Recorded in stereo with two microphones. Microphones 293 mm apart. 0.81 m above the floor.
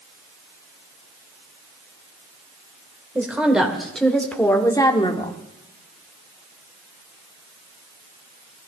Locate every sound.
3.1 s a woman speaking: 5° right (ahead or behind), 2.5 m; by 5.4 s 25° left (ahead or behind), 1.5 m